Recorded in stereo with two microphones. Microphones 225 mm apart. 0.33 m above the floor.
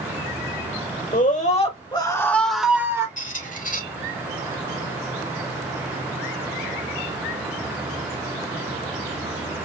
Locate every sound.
1.1 s a scream: 35° left (ahead or behind), 1.4 m; by 3.1 s 15° right (ahead or behind), 1.3 m
3.2 s a squeak: 35° left (ahead or behind), 1.2 m